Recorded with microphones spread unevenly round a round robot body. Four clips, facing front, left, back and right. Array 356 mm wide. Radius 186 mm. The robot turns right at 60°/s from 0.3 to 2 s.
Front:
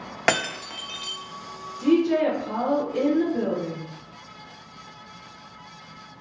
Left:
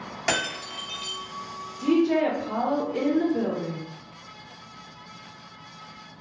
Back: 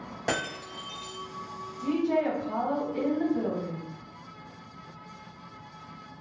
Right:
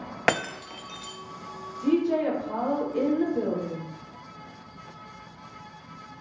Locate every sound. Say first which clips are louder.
0.3 s breaking glass: right 2 dB, front 7 dB; 25° right, 0.6 m; by 1.2 s 30° left, 0.6 m
1.8 s a woman speaking: left 2 dB, front 7 dB; 30° left, 1.0 m; by 3.8 s 45° left, 1.0 m